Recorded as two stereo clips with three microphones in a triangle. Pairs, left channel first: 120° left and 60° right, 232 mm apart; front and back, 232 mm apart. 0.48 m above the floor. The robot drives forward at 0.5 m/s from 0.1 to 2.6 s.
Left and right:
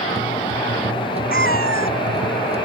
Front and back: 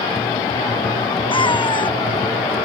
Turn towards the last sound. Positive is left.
turn(degrees=70)